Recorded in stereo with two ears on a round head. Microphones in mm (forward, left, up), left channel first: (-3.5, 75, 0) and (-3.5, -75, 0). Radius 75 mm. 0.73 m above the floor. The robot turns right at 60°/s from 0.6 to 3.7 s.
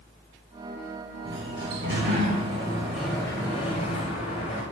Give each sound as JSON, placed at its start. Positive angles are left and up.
{"t": 1.2, "sound": "a sliding door", "azimuth_deg": -110, "distance_m": 9.0}